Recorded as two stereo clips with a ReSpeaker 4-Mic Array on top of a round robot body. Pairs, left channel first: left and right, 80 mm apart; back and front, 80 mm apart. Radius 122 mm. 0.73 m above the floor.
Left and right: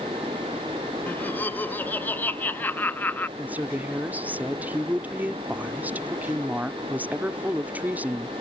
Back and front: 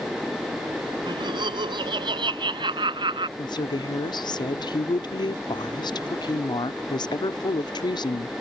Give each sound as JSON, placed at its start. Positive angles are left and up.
{"t": 1.1, "sound": "laughter", "azimuth_deg": 20}
{"t": 3.4, "sound": "a woman speaking", "azimuth_deg": -160}